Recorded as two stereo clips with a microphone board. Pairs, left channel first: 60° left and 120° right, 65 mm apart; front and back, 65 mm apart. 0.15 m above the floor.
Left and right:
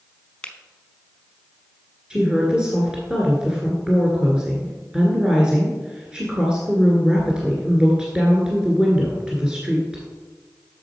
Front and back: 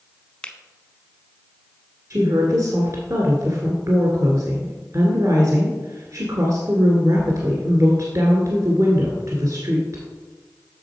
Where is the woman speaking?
165° left, 1.7 m.